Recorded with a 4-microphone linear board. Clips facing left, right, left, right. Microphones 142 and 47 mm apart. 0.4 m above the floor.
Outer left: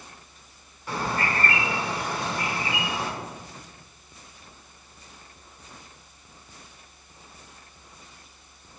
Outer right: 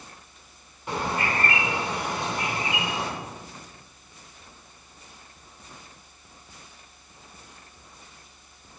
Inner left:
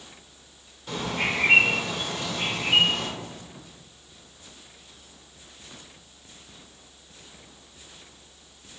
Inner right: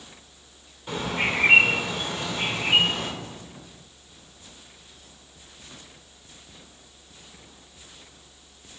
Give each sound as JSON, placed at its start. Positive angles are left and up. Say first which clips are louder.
{"t": 0.9, "sound": "a bird", "louder": "even, inner right 1 dB", "side_deg": -20, "distance_m": 1.5}